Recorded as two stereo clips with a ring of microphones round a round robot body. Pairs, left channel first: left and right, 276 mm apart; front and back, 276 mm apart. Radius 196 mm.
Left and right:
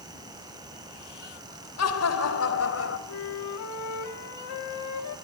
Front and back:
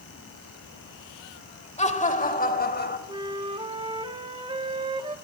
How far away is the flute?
About 1.9 m.